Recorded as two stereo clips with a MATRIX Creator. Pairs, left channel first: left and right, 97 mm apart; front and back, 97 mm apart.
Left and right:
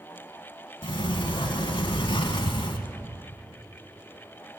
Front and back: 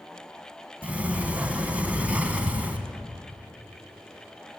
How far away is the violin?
No violin in this recording.